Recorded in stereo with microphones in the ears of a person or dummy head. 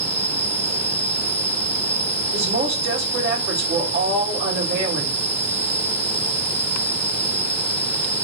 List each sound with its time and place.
0.0 s an insect: 5° left (ahead or behind), 1.1 m
2.3 s a woman speaking: 60° right (ahead or behind), 1.9 m